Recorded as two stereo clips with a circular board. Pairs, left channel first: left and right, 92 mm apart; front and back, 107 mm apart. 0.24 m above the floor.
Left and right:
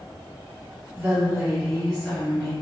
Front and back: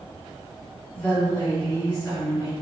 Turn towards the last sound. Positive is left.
turn(degrees=40)